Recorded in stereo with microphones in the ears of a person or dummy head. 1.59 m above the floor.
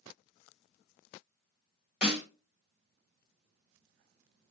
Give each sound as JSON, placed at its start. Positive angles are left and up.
{"t": 2.0, "sound": "a snare drum", "side_deg": -10, "distance_m": 1.1}